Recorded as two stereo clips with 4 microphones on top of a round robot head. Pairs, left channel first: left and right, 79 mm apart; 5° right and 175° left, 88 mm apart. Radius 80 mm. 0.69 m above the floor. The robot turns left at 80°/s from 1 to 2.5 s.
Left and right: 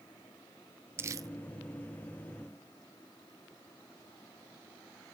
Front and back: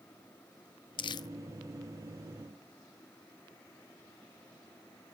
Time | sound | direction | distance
1.0 | crumpling | 30° right | 0.5 m